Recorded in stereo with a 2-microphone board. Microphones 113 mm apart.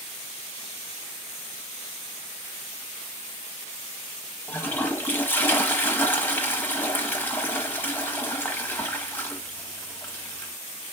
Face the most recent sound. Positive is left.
turn(degrees=15)  # may be behind; listen again after turning